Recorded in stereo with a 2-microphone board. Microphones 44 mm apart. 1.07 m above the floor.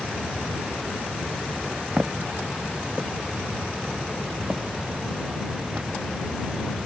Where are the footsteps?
35° right (ahead or behind); by 5.9 s 25° right (ahead or behind).